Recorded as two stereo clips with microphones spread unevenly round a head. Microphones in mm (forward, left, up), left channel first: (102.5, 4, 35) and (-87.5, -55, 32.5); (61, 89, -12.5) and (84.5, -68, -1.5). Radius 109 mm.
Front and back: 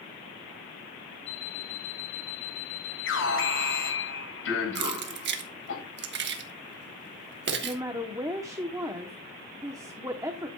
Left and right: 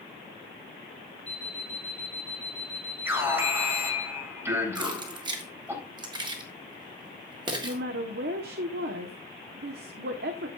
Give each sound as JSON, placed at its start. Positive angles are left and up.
{"t": 1.3, "sound": "an alarm clock", "azimuth_deg": 15, "distance_m": 1.6}
{"t": 3.0, "sound": "an alarm", "azimuth_deg": -5, "distance_m": 8.5}
{"t": 4.8, "sound": "keys jangling", "azimuth_deg": -140, "distance_m": 1.4}
{"t": 7.6, "sound": "a woman speaking", "azimuth_deg": -90, "distance_m": 1.0}